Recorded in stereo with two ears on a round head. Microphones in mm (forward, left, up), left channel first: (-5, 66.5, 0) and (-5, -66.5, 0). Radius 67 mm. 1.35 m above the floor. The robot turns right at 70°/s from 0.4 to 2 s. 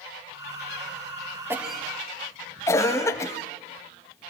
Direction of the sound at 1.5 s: 15° right (ahead or behind).